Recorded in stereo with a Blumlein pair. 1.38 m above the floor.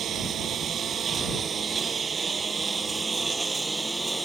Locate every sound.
0.0 s a lawn mower: 25° right; by 4.2 s 5° right